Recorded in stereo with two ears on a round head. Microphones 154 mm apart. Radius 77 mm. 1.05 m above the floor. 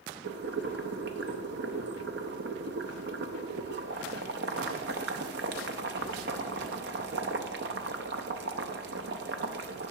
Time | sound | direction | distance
0.2 | boiling | 65° right (ahead or behind) | 0.6 m